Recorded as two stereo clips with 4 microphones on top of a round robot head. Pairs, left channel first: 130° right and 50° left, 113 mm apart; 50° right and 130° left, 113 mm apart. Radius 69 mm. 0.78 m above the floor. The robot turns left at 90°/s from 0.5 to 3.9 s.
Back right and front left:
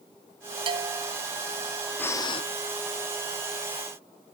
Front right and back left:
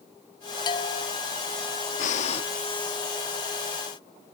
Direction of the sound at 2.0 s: 55° right.